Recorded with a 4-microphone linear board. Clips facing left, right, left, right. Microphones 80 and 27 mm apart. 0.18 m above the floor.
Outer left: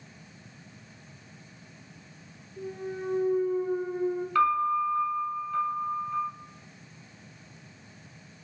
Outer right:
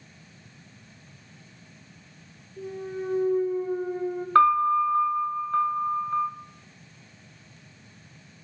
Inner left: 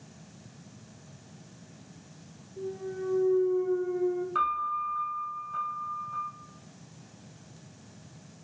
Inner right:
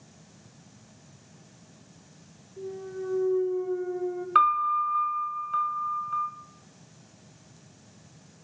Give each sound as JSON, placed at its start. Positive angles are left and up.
{"t": 2.6, "sound": "a clunk", "side_deg": 10, "distance_m": 0.5}
{"t": 4.3, "sound": "a piano", "side_deg": -50, "distance_m": 0.6}